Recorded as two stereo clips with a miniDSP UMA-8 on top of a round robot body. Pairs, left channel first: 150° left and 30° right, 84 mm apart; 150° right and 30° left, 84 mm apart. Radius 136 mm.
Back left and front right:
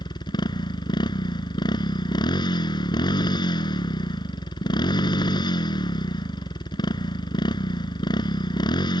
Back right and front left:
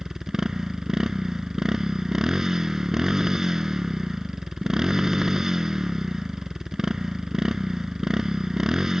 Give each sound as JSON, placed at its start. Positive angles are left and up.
{"t": 0.0, "sound": "a motorcycle", "azimuth_deg": 115}